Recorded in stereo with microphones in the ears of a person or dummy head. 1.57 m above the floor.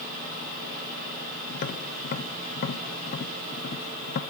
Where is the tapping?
45° left (ahead or behind), 1.0 m.